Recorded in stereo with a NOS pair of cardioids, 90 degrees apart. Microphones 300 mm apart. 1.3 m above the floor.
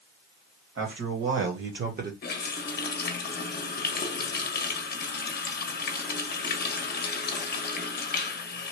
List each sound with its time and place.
0.8 s a man speaking: 55° right, 1.7 m; by 2.1 s 30° right, 1.0 m
2.2 s a running tap: 35° left, 0.9 m